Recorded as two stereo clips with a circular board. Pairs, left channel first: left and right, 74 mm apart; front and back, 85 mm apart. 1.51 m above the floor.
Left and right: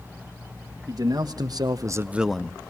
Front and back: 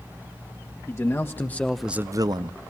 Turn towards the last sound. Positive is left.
turn(degrees=165)